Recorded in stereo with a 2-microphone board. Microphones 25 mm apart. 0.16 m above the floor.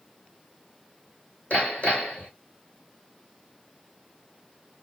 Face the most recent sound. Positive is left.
turn(degrees=70)  # may be behind; listen again after turning